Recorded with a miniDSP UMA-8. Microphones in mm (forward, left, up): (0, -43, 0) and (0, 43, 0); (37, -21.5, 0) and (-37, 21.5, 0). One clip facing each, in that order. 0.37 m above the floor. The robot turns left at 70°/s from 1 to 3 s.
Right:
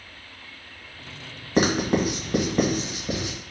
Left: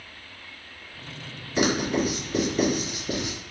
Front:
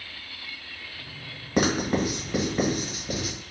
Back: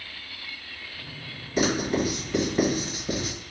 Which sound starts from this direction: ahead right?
Writing, at 1.6 s.